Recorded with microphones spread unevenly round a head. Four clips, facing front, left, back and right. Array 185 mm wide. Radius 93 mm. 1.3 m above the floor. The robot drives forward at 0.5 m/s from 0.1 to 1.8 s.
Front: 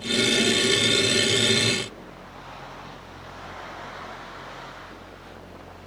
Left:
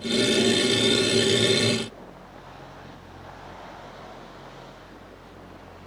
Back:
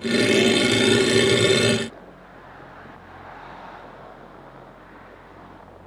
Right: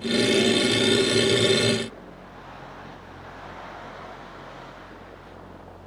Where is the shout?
No shout in this recording.